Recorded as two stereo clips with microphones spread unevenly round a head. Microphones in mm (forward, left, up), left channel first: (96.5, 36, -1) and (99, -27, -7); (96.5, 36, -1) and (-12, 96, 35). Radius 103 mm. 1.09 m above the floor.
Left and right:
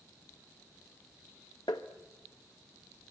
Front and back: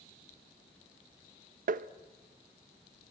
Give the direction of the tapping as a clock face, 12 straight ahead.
7 o'clock.